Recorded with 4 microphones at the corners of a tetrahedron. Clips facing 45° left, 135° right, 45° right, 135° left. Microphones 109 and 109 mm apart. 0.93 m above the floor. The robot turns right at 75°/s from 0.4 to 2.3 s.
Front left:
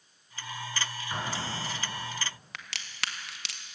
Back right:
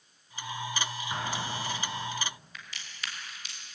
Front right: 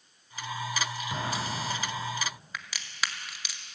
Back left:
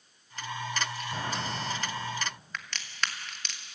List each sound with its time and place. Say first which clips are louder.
1.1 s an explosion: even, front right 2 dB; 55° right, 6.5 m; by 2.1 s 20° left, 6.5 m
2.5 s a crack: front left 4 dB, back left 1 dB; 35° left, 1.6 m